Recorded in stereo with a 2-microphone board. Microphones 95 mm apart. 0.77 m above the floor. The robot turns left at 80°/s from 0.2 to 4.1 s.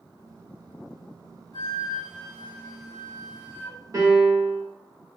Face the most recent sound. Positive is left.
turn(degrees=-30)  # may be behind; listen again after turning